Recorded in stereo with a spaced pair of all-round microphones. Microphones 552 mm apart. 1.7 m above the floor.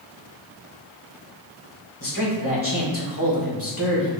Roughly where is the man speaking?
Left.